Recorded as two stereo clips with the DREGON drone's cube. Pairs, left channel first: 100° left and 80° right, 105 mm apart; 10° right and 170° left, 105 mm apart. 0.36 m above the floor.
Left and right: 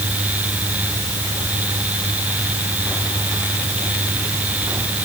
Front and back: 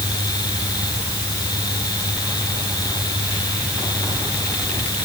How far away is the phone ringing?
I don't hear a phone ringing.